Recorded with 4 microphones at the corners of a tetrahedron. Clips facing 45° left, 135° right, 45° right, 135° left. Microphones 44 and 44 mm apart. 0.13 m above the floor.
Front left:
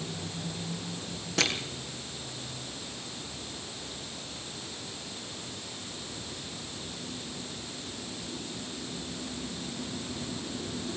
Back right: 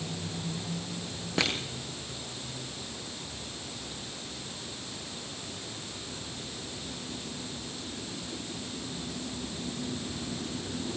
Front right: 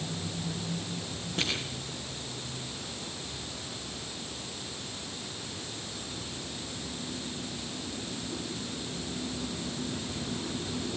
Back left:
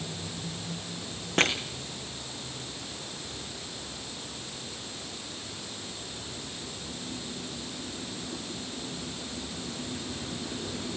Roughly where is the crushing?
Behind left.